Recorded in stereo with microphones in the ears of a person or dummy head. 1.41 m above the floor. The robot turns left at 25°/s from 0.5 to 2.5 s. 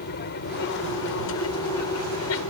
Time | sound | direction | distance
0.0 | an aircraft | 125° left | ?